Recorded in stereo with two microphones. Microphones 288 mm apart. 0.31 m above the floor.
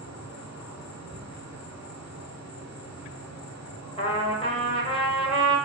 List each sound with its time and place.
0.0 s an insect: 65° left (ahead or behind), 0.8 m
1.1 s a cupboard door: 20° right (ahead or behind), 1.8 m
4.0 s a trumpet: 20° left (ahead or behind), 0.7 m